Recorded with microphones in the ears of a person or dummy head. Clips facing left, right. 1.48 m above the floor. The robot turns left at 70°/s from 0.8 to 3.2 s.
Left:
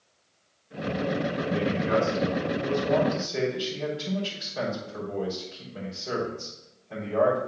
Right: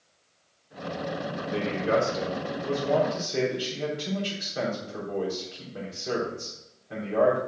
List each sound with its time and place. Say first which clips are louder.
1.5 s a man speaking: right 1 dB; 45° right, 4 m; by 7.4 s 165° right, 4 m